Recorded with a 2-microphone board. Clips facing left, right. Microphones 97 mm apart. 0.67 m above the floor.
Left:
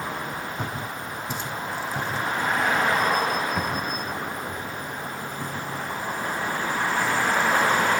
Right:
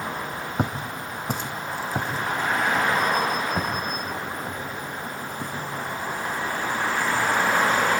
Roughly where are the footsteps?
Right.